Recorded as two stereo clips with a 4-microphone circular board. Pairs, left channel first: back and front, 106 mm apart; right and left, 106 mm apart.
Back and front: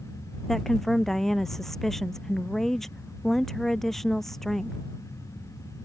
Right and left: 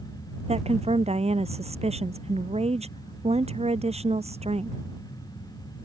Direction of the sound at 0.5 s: 95° left.